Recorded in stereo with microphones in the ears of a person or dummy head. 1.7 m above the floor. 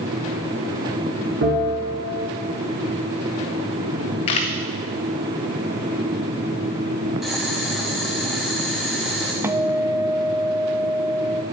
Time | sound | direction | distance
1.4 | a bell | 65° right (ahead or behind) | 3.5 m
4.3 | a camera shutter | 30° left (ahead or behind) | 1.0 m
7.2 | boiling | centre (ahead or behind) | 2 m
9.4 | a guitar | 15° right (ahead or behind) | 0.5 m